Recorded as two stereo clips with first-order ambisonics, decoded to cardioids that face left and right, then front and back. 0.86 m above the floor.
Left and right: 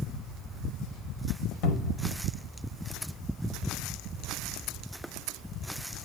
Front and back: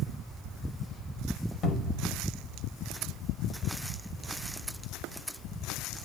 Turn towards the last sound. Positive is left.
turn(degrees=50)